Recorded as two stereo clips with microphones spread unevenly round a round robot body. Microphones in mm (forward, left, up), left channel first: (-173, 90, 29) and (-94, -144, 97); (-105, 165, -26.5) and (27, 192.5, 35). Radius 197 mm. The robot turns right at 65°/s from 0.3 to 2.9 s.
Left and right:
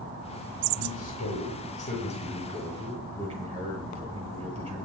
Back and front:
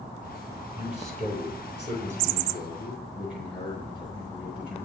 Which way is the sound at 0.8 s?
85° left.